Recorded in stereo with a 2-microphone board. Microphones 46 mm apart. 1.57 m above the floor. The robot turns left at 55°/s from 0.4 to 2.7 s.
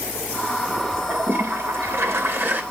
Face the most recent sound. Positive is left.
turn(degrees=-135)